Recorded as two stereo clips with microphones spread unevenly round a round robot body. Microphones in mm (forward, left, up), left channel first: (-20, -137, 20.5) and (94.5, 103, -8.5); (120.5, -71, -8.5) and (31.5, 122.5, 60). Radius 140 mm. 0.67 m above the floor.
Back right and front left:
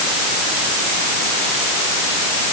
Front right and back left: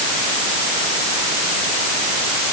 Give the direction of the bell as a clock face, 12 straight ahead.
I don't hear a bell.